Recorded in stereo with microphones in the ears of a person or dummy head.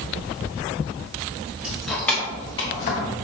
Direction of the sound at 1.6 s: 5° right (ahead or behind).